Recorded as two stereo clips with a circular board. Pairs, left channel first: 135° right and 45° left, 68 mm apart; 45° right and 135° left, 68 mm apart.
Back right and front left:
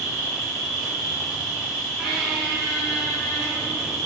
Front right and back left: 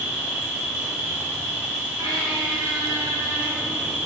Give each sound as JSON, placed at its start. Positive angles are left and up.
{"t": 0.0, "sound": "an insect", "azimuth_deg": 100, "distance_m": 1.1}
{"t": 2.0, "sound": "a squeak", "azimuth_deg": 125, "distance_m": 0.8}